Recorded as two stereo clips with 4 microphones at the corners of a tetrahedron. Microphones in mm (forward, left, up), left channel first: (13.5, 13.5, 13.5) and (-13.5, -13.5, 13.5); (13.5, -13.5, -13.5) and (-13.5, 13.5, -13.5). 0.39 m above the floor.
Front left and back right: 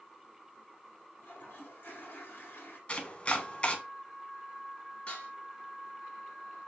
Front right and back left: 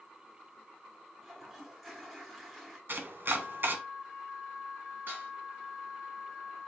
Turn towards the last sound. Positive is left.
turn(degrees=105)